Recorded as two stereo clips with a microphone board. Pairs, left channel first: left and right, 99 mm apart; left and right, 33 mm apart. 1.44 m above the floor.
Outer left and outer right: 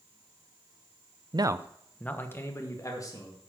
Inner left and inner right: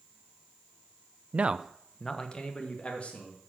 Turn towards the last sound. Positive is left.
turn(degrees=40)  # may be behind; listen again after turning